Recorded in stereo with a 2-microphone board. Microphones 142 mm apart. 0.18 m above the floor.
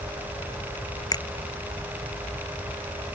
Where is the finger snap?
30° left (ahead or behind).